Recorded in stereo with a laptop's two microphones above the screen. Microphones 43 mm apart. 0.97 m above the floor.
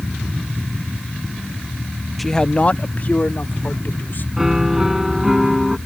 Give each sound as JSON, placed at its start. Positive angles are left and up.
{"t": 2.2, "sound": "a man speaking", "side_deg": 0}
{"t": 4.4, "sound": "a piano", "side_deg": -10}